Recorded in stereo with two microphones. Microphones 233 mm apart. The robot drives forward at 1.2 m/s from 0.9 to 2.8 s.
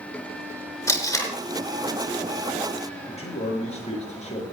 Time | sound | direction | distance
0.9 | tape being pulled | 10° left (ahead or behind) | 4.5 m
3.1 | a man speaking | 30° left (ahead or behind) | 6.5 m